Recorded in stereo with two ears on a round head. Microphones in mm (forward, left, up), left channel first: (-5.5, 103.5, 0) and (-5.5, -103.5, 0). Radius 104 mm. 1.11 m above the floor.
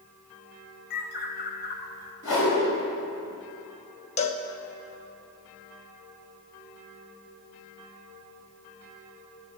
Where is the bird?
45° left (ahead or behind), 1.7 m.